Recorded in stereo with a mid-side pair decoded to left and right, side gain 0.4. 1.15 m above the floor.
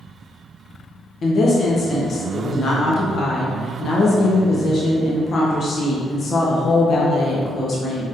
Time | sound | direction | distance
1.2 | a woman speaking | 55° left | 0.9 m